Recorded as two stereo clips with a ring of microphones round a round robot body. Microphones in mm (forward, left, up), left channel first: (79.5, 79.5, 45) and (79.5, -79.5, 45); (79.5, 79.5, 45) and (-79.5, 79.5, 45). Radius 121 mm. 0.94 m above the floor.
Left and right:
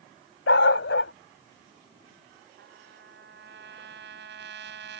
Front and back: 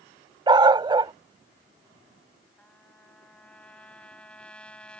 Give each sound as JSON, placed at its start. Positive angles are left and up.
{"t": 0.5, "sound": "a dog barking", "azimuth_deg": 115}
{"t": 2.6, "sound": "a trumpet", "azimuth_deg": -85}